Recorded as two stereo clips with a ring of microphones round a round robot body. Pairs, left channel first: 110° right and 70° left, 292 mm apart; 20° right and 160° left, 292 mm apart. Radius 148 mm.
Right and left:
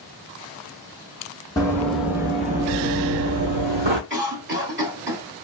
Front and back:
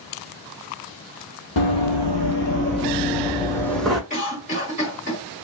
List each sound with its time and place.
1.6 s running footsteps: 35° right, 0.8 m; by 4.0 s 70° left, 0.9 m
4.1 s a cough: 35° left, 1.7 m